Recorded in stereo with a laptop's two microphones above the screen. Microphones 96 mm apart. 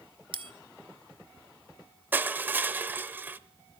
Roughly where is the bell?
Right.